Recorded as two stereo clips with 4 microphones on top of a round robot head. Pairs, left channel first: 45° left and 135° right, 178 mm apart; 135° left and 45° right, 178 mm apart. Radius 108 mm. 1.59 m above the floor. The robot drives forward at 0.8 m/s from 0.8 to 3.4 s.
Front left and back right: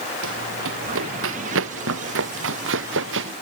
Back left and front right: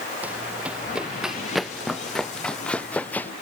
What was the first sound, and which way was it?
Running footsteps, 130° right.